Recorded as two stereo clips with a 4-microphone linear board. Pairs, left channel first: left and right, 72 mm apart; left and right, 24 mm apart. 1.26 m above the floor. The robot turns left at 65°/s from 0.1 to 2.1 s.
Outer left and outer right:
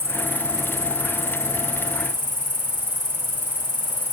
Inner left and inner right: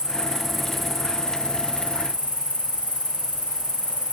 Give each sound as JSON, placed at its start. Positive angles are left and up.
{"t": 0.0, "sound": "an insect", "azimuth_deg": -140, "distance_m": 3.5}